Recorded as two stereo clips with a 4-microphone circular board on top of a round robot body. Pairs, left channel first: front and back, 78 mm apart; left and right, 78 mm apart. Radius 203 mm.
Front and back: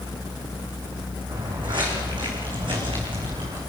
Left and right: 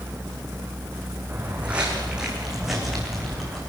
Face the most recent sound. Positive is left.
turn(degrees=175)